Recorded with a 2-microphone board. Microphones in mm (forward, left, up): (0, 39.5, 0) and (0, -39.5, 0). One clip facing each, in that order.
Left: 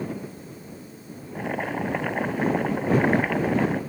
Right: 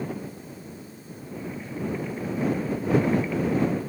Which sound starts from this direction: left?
Boiling, at 1.4 s.